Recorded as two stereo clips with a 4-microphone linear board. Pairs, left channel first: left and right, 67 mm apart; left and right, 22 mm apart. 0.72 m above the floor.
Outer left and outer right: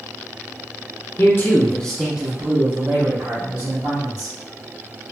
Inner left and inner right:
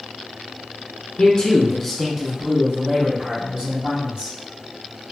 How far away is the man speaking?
About 0.8 m.